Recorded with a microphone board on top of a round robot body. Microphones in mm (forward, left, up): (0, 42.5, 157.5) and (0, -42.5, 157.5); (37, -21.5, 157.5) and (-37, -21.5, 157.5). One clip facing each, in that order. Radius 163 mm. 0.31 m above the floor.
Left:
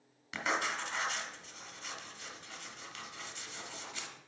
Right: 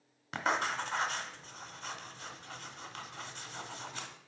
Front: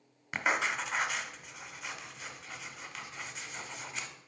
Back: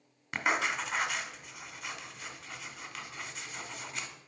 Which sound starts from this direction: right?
Writing, at 0.3 s.